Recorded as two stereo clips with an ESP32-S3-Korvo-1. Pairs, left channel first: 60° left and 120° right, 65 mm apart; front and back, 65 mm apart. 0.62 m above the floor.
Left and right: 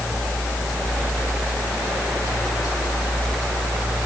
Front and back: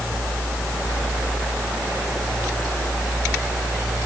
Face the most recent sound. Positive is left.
No sound to turn to.